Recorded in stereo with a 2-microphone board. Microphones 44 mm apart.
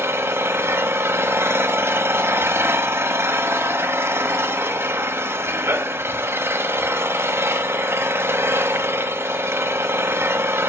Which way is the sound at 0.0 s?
65° right (ahead or behind).